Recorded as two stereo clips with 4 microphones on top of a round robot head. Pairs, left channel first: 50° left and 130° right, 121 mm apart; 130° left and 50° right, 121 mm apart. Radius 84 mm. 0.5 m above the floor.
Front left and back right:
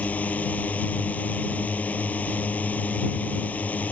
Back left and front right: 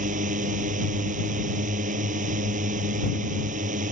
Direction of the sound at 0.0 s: 30° right.